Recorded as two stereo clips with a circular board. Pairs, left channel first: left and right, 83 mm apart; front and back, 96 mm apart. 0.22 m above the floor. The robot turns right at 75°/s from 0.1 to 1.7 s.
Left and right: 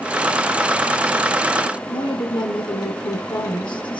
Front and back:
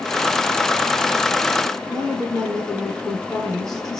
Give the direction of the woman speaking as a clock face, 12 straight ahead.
9 o'clock.